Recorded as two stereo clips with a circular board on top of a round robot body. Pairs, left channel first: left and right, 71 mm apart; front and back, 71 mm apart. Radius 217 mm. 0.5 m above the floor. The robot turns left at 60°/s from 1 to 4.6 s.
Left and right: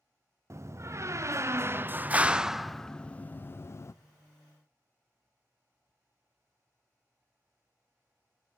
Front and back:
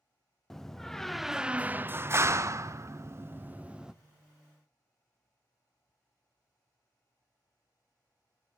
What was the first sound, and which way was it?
A door slam, 80° right.